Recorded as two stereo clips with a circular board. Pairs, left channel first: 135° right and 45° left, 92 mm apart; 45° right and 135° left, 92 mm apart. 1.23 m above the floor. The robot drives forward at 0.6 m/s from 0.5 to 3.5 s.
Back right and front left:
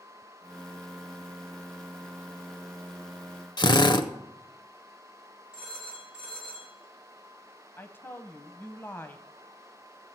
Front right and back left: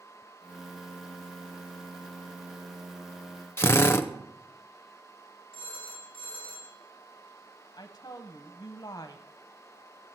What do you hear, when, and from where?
3.6 s a drill: 105° right, 0.6 m
5.5 s a phone ringing: 125° left, 7.5 m
7.8 s a woman speaking: 75° right, 0.6 m